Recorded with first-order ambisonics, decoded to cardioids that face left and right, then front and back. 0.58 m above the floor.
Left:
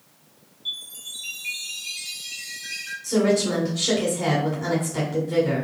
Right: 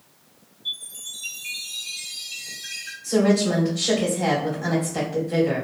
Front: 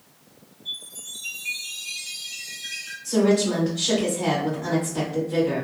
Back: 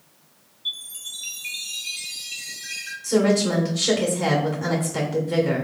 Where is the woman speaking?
165° left, 1.7 m.